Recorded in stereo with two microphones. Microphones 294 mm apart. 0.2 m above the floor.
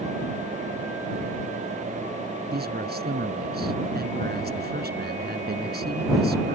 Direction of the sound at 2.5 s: 35° right (ahead or behind).